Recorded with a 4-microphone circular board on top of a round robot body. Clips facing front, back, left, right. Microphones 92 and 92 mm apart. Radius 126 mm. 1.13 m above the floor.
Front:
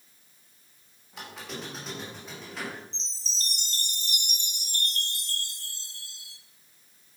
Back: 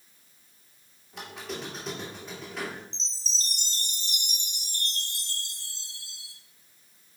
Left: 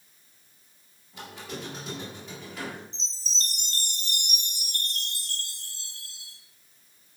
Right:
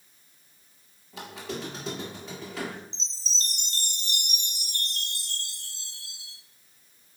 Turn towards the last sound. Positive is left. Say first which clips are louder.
# back 1 dB, even
turn(degrees=40)